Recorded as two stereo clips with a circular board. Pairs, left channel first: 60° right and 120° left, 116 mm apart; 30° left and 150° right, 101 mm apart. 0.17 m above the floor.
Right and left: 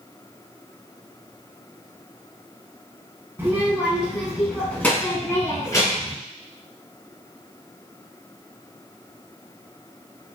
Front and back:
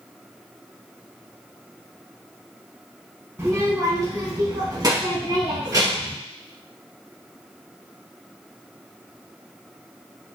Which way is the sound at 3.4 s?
175° left.